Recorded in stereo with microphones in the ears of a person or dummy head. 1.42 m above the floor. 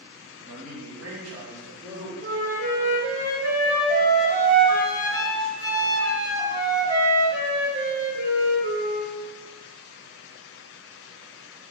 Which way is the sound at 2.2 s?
65° right (ahead or behind).